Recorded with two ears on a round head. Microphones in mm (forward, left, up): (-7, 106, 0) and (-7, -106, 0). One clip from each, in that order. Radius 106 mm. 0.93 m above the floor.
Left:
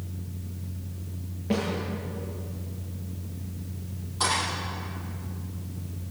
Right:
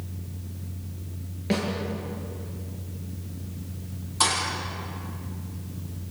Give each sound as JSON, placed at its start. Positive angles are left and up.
{"t": 1.5, "sound": "a snare drum", "side_deg": -70, "distance_m": 9.0}
{"t": 4.2, "sound": "a thud", "side_deg": -65, "distance_m": 8.5}